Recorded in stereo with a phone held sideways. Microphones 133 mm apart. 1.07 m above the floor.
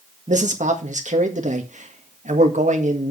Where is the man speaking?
60° right (ahead or behind), 1.6 m.